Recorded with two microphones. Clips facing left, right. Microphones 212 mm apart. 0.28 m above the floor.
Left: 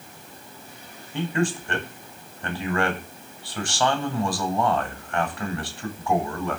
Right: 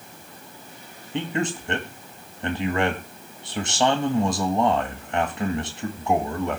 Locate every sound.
1.1 s a man speaking: 20° right (ahead or behind), 1.3 m